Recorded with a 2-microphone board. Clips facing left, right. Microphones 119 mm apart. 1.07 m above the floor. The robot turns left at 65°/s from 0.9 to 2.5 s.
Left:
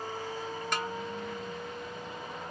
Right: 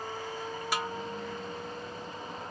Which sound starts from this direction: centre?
A snare drum, at 0.7 s.